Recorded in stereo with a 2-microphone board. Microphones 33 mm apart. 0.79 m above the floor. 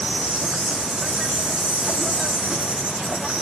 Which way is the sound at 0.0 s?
20° right (ahead or behind).